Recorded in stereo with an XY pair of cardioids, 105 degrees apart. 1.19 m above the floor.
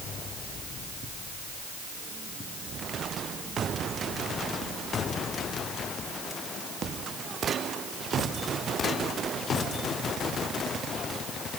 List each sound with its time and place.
Only background noise.